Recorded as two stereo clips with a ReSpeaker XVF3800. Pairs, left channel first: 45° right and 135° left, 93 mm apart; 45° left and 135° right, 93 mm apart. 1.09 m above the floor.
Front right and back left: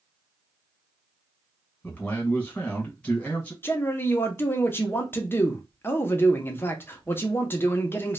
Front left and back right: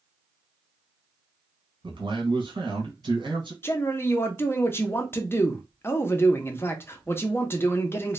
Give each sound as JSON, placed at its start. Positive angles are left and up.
{"t": 1.8, "sound": "a man speaking", "azimuth_deg": -120, "distance_m": 1.3}
{"t": 3.6, "sound": "a man speaking", "azimuth_deg": 5, "distance_m": 0.5}